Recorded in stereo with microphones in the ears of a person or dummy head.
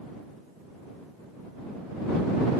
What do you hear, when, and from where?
Only background noise.